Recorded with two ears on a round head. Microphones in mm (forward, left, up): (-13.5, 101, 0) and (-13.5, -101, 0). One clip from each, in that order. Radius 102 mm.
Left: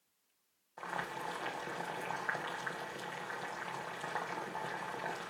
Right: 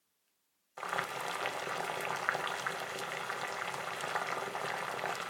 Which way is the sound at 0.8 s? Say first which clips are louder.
Right 4 dB; 55° right (ahead or behind).